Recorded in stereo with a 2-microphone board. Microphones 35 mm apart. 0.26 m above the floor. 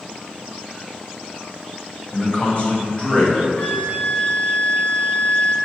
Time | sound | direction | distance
2.1 | a man speaking | 30° left (ahead or behind) | 1.7 m
3.6 | a flute | 25° left (ahead or behind) | 1.4 m